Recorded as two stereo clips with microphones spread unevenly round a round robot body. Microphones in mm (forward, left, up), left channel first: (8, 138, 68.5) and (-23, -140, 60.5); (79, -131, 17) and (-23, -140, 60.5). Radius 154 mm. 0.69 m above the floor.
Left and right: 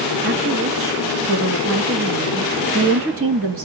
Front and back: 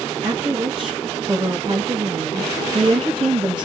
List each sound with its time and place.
0.2 s a woman speaking: 110° right, 1.4 m